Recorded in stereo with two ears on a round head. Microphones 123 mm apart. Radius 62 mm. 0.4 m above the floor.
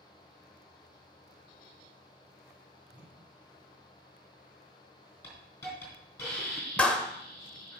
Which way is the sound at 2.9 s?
5° right (ahead or behind).